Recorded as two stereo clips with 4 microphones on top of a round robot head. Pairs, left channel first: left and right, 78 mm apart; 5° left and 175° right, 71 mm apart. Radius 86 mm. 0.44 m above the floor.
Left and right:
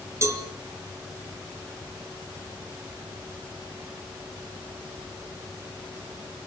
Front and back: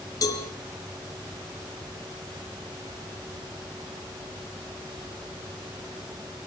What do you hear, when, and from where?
0.2 s a cowbell: 35° right, 2.5 m